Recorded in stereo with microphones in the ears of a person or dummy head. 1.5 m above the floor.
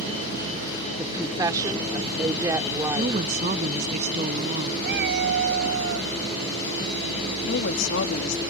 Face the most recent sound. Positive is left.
turn(degrees=70)  # may be behind; listen again after turning